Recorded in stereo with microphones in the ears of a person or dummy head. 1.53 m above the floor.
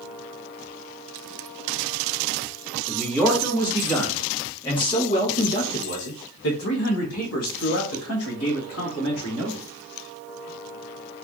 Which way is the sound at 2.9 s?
Centre (ahead or behind).